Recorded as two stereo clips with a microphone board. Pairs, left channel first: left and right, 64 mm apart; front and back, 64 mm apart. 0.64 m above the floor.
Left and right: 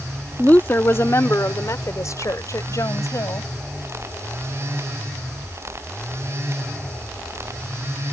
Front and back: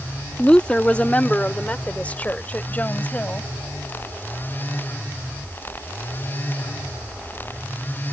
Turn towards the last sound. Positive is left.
turn(degrees=65)